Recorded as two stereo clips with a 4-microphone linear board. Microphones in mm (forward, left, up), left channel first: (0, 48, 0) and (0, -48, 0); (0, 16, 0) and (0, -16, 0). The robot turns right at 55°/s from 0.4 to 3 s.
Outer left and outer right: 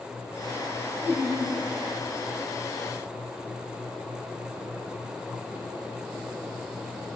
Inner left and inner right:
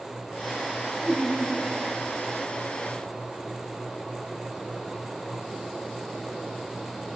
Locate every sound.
1.0 s laughter: 20° right (ahead or behind), 5.5 m; by 1.5 s 45° right (ahead or behind), 5.5 m